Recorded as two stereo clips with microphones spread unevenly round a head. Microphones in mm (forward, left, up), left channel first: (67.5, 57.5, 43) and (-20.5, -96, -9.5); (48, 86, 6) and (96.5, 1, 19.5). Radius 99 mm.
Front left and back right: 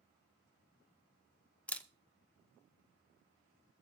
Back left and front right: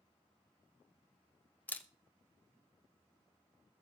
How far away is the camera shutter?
About 0.6 m.